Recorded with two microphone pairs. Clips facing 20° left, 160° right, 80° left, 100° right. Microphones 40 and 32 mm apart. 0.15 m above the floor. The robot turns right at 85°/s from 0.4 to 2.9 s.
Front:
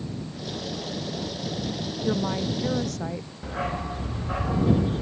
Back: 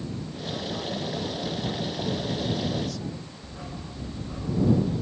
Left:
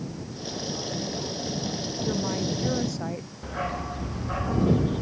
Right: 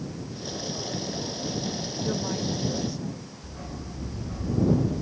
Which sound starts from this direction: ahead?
A woman speaking, at 2.0 s.